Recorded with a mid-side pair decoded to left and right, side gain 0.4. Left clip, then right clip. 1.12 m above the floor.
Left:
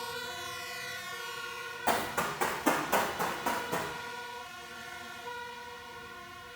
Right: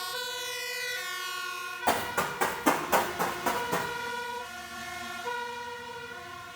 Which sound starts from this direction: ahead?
Running footsteps, at 1.9 s.